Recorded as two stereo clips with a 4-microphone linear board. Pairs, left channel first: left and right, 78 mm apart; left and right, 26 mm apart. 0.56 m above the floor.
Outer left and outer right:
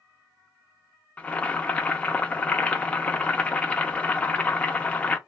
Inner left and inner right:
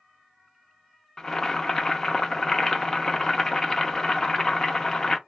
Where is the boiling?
15° left (ahead or behind), 0.5 m.